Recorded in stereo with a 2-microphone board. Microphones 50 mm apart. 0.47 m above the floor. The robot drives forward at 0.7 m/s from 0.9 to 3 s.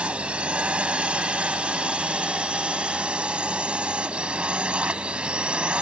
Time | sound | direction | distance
0.0 | a drone | 25° right (ahead or behind) | ?